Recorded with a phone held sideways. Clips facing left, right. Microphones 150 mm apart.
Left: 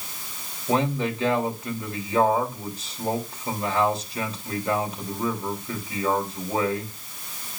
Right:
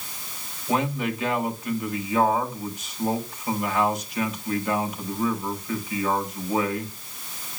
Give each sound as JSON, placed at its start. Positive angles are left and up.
{"t": 0.7, "sound": "a man speaking", "side_deg": 30, "distance_m": 3.0}